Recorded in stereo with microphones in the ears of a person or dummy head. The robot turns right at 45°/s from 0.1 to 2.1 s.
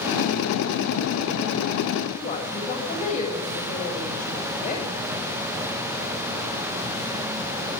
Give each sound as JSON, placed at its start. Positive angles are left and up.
{"t": 2.1, "sound": "a woman speaking", "side_deg": 30, "distance_m": 7.5}